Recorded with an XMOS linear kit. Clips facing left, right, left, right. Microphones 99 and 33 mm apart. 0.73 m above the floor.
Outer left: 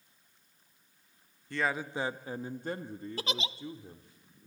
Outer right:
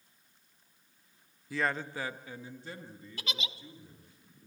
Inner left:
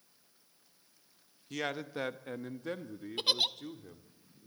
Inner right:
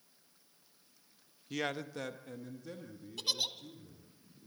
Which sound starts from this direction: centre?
A man speaking, at 1.5 s.